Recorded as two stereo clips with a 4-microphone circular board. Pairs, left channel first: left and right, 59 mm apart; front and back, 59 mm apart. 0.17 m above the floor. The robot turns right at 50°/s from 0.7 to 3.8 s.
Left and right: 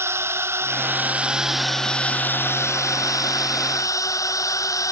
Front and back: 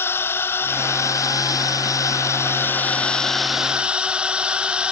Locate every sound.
0.0 s a drone: 45° right; by 4.9 s 110° left